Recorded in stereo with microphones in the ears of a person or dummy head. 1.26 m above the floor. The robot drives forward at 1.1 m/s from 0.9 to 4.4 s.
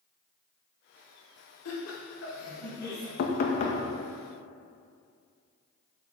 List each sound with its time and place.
1.6 s laughter: 75° left (ahead or behind), 2.5 m; by 3.1 s 50° left (ahead or behind), 3 m
3.2 s knocking: 55° left (ahead or behind), 0.9 m; by 3.8 s 30° left (ahead or behind), 1.4 m